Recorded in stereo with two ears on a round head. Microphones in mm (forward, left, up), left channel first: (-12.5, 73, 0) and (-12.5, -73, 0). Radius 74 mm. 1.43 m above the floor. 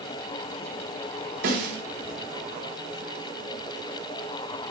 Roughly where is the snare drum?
Right.